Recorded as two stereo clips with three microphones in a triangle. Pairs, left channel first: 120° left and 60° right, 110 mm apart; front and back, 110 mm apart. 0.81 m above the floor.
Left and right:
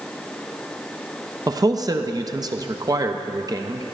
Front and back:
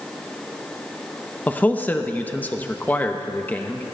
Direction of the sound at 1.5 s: 65° right.